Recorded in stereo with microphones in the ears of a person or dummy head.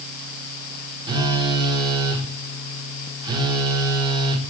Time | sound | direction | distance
1.1 | a phone buzzing | 25° right (ahead or behind) | 4 m